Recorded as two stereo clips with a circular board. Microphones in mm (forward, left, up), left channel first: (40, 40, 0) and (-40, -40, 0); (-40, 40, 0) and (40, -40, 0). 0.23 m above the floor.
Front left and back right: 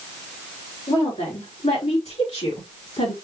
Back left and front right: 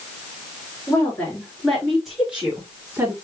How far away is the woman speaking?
About 3.5 m.